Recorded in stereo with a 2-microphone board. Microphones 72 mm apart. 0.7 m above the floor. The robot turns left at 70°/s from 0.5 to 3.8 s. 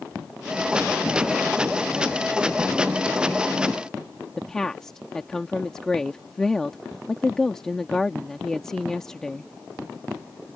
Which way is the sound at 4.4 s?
5° left (ahead or behind).